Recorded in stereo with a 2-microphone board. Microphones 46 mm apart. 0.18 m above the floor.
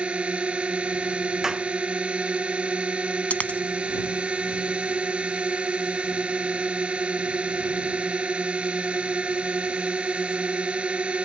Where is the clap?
10° right (ahead or behind).